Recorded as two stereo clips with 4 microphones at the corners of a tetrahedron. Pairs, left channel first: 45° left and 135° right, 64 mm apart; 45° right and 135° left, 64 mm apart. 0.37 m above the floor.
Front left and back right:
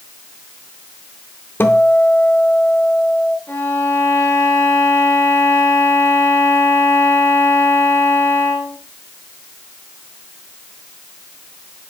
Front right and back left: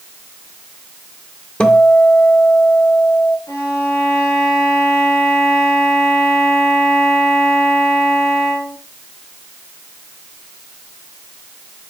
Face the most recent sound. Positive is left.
turn(degrees=-5)